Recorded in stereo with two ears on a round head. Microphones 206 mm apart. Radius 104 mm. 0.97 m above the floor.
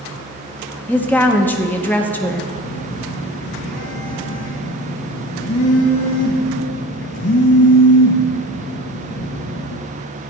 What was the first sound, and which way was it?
A woman speaking, 10° left (ahead or behind).